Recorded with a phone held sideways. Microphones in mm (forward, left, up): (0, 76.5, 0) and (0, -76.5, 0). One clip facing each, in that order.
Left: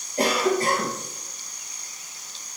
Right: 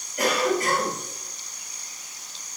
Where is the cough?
35° left (ahead or behind), 5.5 m.